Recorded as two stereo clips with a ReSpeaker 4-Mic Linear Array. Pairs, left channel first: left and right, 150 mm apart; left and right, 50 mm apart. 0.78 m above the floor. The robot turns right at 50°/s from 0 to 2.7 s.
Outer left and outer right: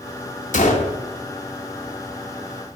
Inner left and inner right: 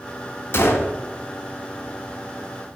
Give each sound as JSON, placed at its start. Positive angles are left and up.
{"t": 0.5, "sound": "a gunshot", "side_deg": 55, "distance_m": 0.5}